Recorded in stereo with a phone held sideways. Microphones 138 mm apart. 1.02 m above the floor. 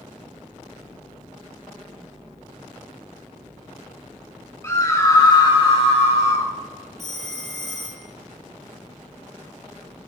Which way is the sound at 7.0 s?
55° right (ahead or behind).